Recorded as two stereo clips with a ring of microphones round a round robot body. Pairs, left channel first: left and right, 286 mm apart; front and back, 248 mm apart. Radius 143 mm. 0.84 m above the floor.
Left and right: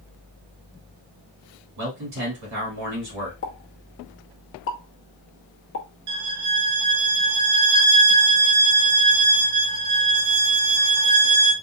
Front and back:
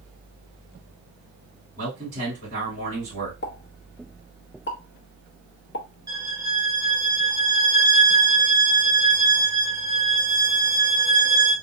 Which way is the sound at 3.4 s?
45° left.